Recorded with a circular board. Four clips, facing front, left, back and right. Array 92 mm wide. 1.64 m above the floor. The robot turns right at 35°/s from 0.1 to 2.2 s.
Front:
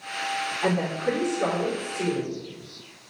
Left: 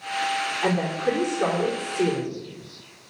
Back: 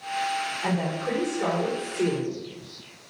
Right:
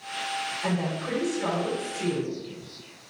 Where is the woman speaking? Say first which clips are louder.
Left 6 dB, front 5 dB; 50° left, 4.5 m; by 2.4 s 105° left, 4.5 m.